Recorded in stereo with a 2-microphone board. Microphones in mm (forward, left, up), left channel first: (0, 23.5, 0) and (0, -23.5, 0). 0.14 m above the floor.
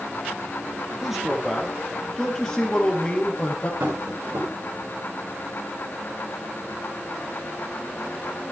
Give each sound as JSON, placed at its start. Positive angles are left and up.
{"t": 1.0, "sound": "a man speaking", "side_deg": -5, "distance_m": 3.0}
{"t": 3.8, "sound": "tapping", "side_deg": -75, "distance_m": 9.0}